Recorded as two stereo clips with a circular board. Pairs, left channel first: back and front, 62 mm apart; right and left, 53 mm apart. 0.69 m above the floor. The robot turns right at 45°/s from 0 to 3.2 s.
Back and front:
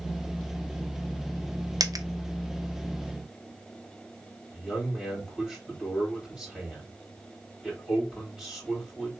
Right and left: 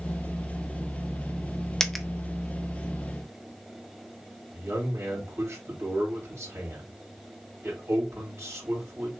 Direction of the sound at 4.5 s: 90° left.